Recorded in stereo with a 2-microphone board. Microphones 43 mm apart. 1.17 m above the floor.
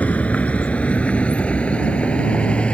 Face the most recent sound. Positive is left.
turn(degrees=25)  # may be behind; listen again after turning